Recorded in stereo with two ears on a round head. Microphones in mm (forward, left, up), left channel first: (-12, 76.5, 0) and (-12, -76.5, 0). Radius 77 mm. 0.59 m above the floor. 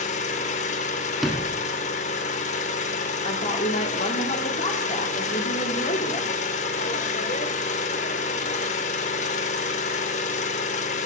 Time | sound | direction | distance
0.0 | an engine running | 40° left (ahead or behind) | 0.8 m
1.2 | a sliding door | centre (ahead or behind) | 0.9 m
3.2 | a woman speaking | 40° left (ahead or behind) | 1.3 m